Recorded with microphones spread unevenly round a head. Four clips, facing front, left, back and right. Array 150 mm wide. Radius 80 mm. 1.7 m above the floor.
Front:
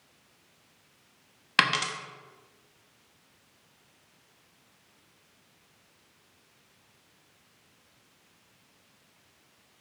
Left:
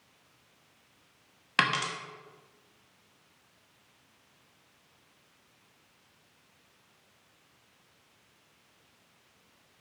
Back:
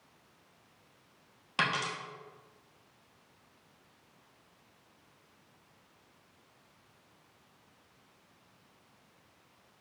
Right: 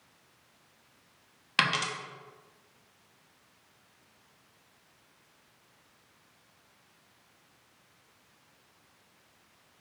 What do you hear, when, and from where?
1.6 s a dropped coin: 45° left, 1.2 m